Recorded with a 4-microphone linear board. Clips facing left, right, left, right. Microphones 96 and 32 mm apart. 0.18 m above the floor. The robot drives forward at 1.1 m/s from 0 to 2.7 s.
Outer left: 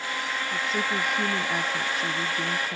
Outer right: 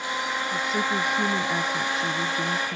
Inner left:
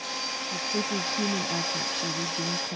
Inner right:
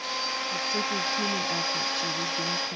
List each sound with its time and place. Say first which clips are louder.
0.5 s a woman speaking: outer right 2 dB, inner left 1 dB; centre (ahead or behind)